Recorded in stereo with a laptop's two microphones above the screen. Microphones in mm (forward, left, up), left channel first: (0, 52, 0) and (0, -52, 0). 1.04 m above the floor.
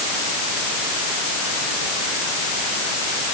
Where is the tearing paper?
I don't hear tearing paper.